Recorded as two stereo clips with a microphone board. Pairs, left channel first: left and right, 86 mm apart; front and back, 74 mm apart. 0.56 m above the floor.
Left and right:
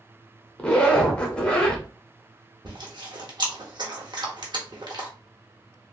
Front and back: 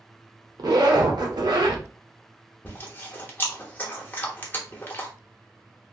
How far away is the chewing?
About 0.9 m.